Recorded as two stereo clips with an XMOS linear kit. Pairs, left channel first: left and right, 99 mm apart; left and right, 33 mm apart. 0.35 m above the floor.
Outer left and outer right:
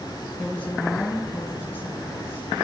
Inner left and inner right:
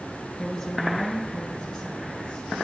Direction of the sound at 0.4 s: 10° left (ahead or behind).